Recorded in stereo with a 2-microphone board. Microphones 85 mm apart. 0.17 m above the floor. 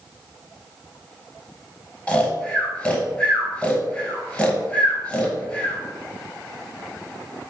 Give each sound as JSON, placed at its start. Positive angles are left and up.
{"t": 2.1, "sound": "snoring", "side_deg": 15, "distance_m": 0.8}